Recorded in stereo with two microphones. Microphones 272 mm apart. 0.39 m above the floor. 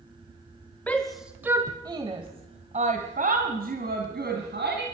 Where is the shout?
5° left (ahead or behind), 1.2 m; by 4.8 s 40° right (ahead or behind), 3 m.